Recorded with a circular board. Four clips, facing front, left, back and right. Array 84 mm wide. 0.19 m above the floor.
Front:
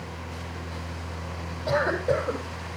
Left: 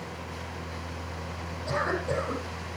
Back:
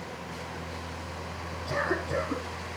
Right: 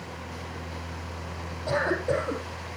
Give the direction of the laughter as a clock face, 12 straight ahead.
I don't hear laughter.